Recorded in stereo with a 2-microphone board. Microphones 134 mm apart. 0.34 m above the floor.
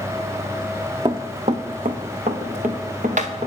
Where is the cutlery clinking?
I don't hear cutlery clinking.